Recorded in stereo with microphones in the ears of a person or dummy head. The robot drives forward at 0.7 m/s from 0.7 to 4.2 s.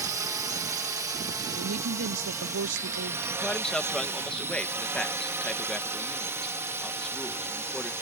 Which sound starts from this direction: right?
A woman speaking, at 1.6 s.